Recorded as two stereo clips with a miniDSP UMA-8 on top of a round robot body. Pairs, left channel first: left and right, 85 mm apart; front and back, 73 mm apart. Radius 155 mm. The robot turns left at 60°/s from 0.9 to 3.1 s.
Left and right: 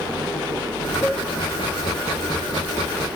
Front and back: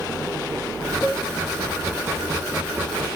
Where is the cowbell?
115° left, 9.5 m; by 1.2 s 100° left, 9.5 m.